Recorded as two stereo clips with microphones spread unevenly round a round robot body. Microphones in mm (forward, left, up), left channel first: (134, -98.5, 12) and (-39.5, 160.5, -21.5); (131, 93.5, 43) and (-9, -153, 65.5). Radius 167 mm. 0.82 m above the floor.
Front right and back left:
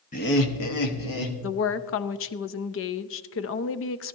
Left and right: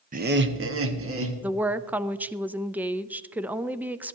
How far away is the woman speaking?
About 0.6 m.